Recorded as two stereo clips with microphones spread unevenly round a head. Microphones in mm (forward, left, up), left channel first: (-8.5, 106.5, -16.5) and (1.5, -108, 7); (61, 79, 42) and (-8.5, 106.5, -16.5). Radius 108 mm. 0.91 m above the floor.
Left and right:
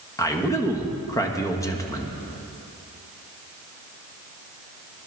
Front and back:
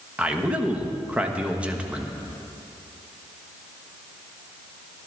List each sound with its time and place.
0.2 s a man speaking: 160° left, 1.2 m